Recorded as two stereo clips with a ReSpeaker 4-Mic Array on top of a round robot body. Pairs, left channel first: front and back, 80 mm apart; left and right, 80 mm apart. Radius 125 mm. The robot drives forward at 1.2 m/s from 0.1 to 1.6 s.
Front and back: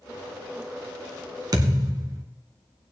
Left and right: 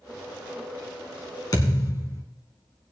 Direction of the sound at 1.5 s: 135° left.